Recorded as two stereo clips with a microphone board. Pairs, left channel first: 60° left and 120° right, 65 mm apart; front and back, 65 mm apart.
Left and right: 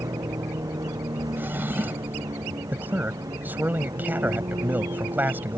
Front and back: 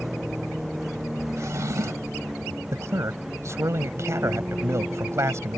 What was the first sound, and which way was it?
A vehicle, 95° right.